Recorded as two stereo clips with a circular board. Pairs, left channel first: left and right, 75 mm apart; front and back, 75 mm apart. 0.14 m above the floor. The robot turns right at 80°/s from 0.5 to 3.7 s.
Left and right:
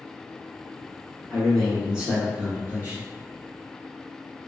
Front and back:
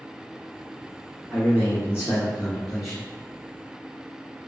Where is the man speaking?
155° left, 1.5 m; by 3.1 s 65° right, 1.5 m.